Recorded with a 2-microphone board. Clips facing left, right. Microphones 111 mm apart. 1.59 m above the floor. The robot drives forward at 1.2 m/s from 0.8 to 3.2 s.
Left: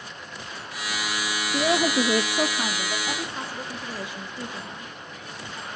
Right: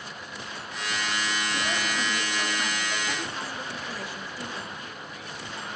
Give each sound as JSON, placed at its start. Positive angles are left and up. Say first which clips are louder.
{"t": 1.5, "sound": "a woman speaking", "louder": "left 8 dB", "side_deg": 40, "distance_m": 0.8}